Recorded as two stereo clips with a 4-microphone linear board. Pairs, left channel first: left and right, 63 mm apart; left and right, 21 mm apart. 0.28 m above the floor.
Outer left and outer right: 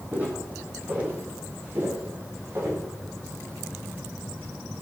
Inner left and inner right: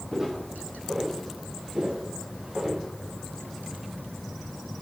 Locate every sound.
0.1 s footsteps: 30° right (ahead or behind), 5.5 m; by 2.8 s 45° right (ahead or behind), 5 m